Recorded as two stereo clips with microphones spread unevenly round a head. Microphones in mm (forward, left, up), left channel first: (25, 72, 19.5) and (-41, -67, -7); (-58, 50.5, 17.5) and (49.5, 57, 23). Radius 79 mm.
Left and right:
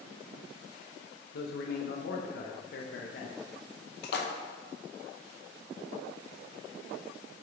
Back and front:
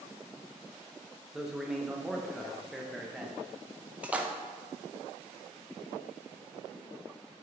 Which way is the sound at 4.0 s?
85° left.